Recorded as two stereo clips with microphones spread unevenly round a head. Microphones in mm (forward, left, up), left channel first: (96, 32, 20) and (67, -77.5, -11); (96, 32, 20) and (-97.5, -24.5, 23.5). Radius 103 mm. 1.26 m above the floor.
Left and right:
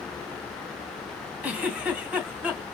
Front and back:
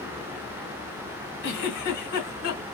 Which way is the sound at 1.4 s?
15° right.